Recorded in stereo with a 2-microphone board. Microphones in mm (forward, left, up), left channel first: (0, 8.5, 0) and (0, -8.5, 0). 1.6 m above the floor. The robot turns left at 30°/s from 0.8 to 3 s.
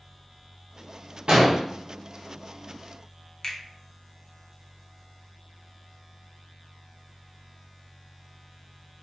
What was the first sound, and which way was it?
An explosion, 50° right (ahead or behind).